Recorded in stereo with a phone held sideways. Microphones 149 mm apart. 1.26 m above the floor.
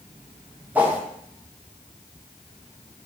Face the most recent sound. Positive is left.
turn(degrees=-10)  # may be behind; listen again after turning